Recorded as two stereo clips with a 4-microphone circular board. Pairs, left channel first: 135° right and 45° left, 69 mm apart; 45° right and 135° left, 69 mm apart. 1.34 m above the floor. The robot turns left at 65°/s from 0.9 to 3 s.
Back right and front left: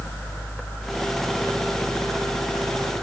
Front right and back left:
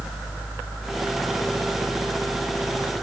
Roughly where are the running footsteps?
I don't hear running footsteps.